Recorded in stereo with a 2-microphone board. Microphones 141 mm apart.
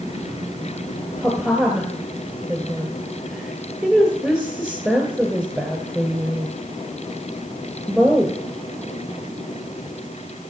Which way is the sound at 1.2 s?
Centre (ahead or behind).